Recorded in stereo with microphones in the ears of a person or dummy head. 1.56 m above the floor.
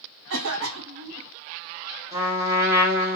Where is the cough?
75° right (ahead or behind), 0.8 m.